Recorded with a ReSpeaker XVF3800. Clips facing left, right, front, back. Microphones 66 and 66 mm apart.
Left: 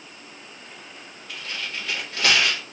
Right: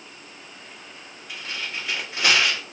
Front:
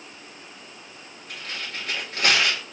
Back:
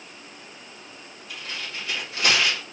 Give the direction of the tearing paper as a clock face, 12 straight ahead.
1 o'clock.